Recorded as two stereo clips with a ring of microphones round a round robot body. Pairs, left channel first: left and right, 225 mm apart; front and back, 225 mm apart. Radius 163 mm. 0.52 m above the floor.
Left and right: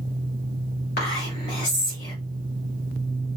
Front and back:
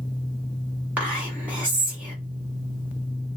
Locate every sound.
1.0 s whispering: 100° left, 1.3 m